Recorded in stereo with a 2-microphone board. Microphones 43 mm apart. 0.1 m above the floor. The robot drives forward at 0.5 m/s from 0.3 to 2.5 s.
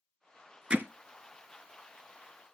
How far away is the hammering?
About 0.6 m.